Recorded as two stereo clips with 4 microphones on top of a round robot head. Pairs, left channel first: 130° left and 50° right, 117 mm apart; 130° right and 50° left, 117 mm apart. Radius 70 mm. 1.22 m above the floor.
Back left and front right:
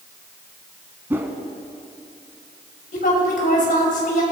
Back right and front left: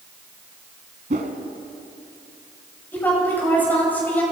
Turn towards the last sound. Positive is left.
turn(degrees=155)